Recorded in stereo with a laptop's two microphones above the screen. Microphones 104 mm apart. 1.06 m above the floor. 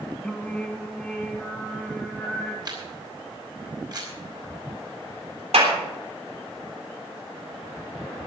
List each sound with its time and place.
0.2 s singing: 5° left (ahead or behind), 1.6 m
2.6 s a camera shutter: 40° right (ahead or behind), 3 m
5.5 s a clap: 80° right, 3.5 m